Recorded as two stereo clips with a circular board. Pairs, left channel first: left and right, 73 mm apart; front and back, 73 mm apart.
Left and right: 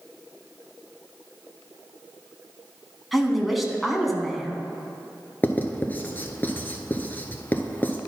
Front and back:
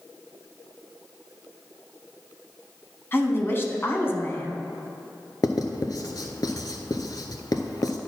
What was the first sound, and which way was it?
A woman speaking, straight ahead.